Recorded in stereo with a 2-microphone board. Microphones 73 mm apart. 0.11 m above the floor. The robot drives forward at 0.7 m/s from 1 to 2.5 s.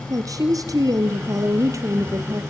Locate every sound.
0.1 s a woman speaking: 50° right (ahead or behind), 2.5 m; by 2.4 s 40° right (ahead or behind), 3 m